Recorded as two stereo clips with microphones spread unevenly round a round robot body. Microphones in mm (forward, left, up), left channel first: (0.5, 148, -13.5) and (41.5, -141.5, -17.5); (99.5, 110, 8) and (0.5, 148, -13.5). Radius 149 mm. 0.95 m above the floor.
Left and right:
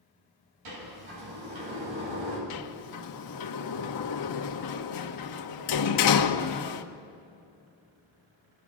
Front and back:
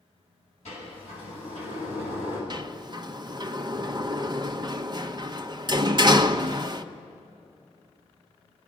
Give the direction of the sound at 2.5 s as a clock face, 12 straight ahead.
8 o'clock.